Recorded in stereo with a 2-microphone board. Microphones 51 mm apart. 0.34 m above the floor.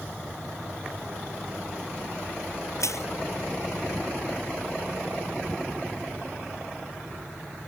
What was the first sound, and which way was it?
Crushing, 80° left.